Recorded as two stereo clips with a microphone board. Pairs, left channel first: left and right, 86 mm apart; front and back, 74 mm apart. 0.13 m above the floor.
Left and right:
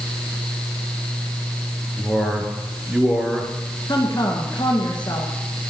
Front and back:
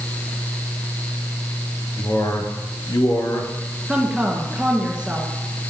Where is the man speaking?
10° right, 2.5 m.